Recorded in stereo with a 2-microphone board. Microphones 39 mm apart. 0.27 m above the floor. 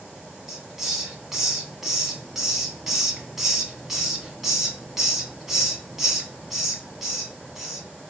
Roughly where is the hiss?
Centre.